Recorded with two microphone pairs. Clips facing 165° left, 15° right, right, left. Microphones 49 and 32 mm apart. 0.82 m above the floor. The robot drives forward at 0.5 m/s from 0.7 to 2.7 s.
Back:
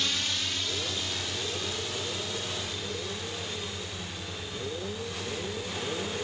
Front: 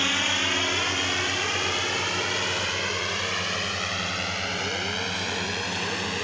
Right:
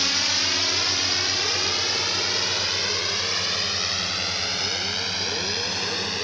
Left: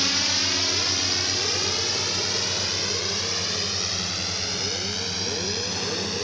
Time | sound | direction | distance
0.0 | a drone | 10° right | ?